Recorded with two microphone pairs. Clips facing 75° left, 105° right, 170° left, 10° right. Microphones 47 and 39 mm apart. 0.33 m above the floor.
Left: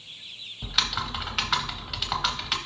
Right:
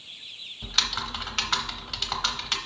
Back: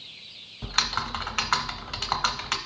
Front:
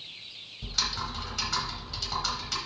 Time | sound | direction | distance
0.6 | typing on a keyboard | 155° left | 0.8 m